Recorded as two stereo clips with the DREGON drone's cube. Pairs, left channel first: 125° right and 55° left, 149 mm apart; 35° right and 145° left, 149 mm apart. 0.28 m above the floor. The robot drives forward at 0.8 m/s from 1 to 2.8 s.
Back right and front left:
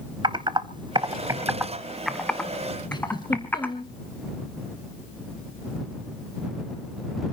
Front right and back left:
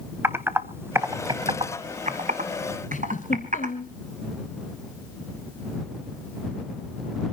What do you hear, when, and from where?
0.2 s typing on a keyboard: 80° left, 0.9 m; by 3.7 s 160° left, 1.6 m
2.9 s a giggle: 65° right, 2 m